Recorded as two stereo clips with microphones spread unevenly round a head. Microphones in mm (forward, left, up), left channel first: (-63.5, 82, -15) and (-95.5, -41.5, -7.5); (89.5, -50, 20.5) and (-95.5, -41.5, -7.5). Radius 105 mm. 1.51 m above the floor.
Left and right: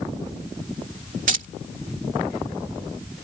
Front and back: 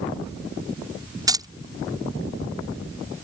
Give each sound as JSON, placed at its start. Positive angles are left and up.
{"t": 1.3, "sound": "keys jangling", "azimuth_deg": -110}